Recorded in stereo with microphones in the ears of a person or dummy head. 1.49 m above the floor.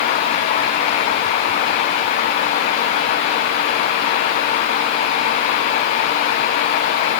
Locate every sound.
Only background noise.